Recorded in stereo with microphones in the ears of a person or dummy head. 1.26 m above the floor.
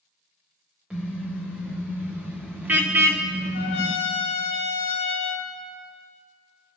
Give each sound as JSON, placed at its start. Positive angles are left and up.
{"t": 0.9, "sound": "a car horn", "side_deg": -5, "distance_m": 2.5}
{"t": 3.5, "sound": "a trumpet", "side_deg": 50, "distance_m": 1.4}